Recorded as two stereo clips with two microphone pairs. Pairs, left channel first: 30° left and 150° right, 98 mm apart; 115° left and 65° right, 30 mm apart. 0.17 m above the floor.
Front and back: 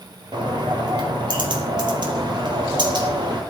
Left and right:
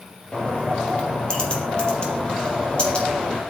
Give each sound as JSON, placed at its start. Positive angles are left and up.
{"t": 0.3, "sound": "a bird", "azimuth_deg": 170, "distance_m": 3.0}